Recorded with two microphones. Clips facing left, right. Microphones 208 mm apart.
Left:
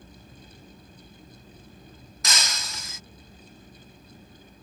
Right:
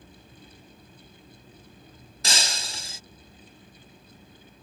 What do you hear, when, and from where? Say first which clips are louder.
2.2 s breaking glass: right 1 dB; 30° right (ahead or behind)